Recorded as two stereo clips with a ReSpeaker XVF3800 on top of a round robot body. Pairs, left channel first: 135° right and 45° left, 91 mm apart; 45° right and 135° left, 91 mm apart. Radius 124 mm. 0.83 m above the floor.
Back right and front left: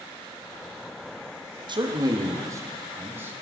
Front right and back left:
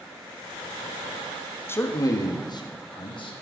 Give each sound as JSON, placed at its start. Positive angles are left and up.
{"t": 1.7, "sound": "a man speaking", "azimuth_deg": 20, "distance_m": 1.6}